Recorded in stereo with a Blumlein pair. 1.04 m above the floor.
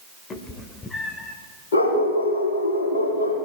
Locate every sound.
0.3 s a cat meowing: 25° left, 1.7 m; by 1.4 s 10° left, 2 m
1.7 s a dog barking: 70° left, 8.5 m